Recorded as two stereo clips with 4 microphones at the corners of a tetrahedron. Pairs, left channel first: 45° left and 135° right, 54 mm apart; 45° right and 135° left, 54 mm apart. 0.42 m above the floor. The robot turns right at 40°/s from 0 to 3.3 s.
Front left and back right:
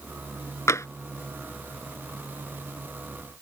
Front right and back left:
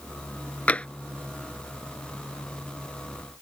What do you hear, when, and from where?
0.7 s tapping: 15° left; by 0.9 s 25° left